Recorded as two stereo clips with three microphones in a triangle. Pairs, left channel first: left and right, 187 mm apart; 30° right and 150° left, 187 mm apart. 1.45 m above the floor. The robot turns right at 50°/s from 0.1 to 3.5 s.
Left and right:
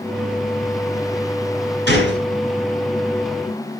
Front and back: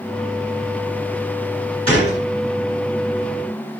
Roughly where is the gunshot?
Right.